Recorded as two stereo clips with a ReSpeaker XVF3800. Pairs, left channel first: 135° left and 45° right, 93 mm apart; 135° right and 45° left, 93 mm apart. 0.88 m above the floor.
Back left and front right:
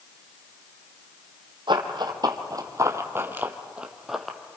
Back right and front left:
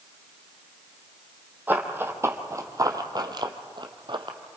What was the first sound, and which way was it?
Running footsteps, 25° right.